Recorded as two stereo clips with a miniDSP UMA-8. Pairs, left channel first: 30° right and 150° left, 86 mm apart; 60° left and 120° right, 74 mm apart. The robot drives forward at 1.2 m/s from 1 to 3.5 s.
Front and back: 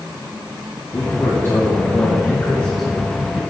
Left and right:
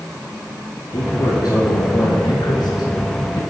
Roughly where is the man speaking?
Ahead left.